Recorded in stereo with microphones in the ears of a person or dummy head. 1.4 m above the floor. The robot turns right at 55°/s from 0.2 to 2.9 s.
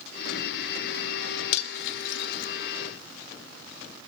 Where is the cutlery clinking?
70° left (ahead or behind), 2.0 m; by 2.5 s 45° left (ahead or behind), 2.0 m.